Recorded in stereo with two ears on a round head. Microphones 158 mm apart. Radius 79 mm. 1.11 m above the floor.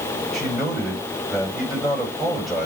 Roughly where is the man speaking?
Centre.